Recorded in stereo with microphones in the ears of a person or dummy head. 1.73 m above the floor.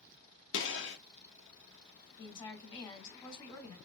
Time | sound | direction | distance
0.5 | a gunshot | 70° left (ahead or behind) | 2.0 m
2.2 | a woman speaking | 25° left (ahead or behind) | 3 m